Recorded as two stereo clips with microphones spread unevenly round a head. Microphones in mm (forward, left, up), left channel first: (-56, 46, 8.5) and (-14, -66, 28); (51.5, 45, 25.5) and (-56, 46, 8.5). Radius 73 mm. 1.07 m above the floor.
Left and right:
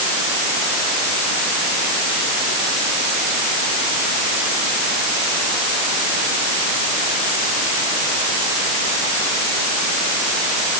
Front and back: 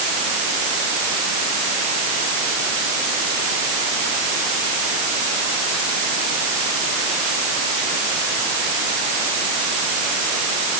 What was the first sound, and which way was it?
Only background noise.